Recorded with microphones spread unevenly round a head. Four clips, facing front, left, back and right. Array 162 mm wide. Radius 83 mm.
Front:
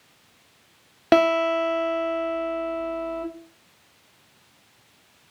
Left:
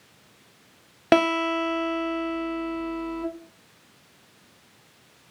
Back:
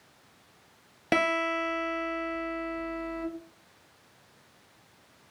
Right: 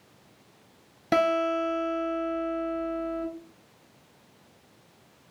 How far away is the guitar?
About 1.0 m.